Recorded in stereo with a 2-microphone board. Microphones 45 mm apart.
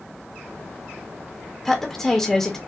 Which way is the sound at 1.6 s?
10° left (ahead or behind).